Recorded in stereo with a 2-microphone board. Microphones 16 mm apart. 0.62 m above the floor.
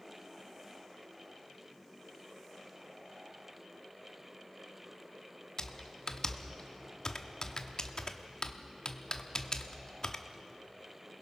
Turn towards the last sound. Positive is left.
turn(degrees=45)  # may be behind; listen again after turning